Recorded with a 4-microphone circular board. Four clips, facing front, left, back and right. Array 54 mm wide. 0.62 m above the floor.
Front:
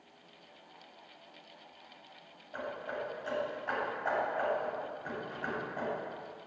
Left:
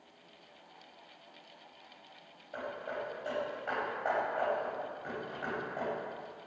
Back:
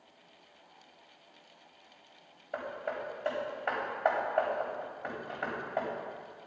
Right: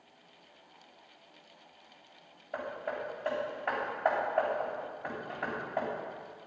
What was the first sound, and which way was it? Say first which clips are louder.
Hammering: right 2 dB, back 2 dB; 150° right.